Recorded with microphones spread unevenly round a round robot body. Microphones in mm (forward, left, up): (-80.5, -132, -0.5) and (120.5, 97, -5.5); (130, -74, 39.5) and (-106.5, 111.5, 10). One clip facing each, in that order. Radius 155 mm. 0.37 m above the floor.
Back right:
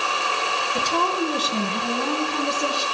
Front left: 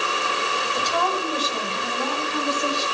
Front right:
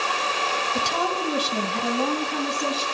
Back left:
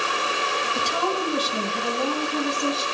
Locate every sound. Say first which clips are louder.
0.8 s a woman speaking: back right 4 dB, back left 1 dB; 80° right, 2 m